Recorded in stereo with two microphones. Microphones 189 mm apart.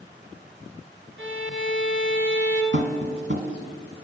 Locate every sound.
1.2 s a violin: 70° right (ahead or behind), 1.3 m
2.7 s tapping: 55° right (ahead or behind), 1.5 m